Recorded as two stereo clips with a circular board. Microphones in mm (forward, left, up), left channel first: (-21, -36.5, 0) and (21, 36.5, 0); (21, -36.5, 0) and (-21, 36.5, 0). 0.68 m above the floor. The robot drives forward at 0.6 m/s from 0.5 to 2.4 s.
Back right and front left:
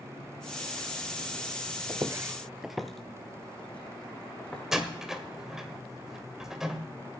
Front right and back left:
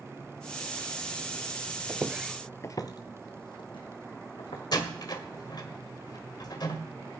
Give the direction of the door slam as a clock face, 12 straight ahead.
1 o'clock.